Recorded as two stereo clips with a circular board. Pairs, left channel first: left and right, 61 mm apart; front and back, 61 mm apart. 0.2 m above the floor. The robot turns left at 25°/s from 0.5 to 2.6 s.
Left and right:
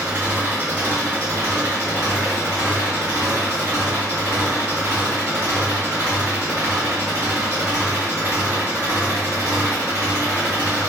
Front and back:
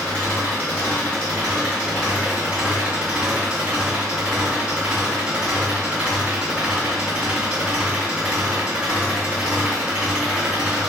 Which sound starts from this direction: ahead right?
An engine running, at 0.0 s.